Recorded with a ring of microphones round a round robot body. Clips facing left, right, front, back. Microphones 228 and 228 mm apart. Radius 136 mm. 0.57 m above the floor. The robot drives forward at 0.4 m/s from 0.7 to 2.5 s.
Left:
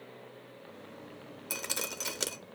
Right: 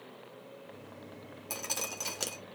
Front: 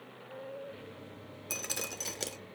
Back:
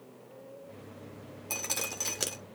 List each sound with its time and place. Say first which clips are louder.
1.5 s dripping: left 1 dB, back 1 dB; 50° left, 0.8 m; by 2.4 s 115° left, 0.8 m